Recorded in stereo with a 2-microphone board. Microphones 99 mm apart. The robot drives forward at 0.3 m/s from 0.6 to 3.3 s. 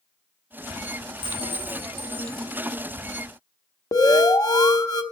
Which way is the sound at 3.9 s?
40° left (ahead or behind).